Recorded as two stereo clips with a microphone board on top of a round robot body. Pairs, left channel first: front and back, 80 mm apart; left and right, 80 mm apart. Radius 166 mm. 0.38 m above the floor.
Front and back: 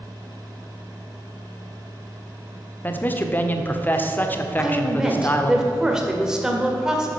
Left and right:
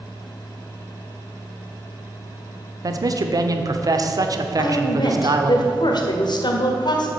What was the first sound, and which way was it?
A man speaking, 60° right.